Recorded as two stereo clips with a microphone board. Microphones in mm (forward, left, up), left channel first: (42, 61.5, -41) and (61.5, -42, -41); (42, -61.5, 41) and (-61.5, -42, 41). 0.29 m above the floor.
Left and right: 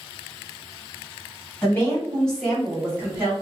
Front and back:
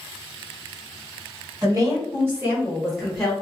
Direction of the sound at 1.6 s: 150° left.